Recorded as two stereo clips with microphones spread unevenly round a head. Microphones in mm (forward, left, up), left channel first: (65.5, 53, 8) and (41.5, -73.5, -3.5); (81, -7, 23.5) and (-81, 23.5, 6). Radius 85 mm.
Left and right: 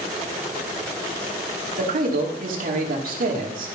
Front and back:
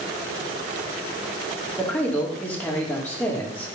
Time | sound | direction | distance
1.8 | a man speaking | 90° right | 2.5 m